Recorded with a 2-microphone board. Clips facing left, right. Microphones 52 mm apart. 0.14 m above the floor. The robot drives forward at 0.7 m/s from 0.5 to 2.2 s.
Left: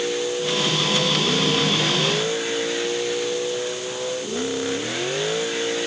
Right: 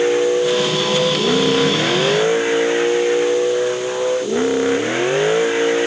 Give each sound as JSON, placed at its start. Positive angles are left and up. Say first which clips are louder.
{"t": 0.0, "sound": "a vehicle", "louder": "right 9 dB", "side_deg": -30}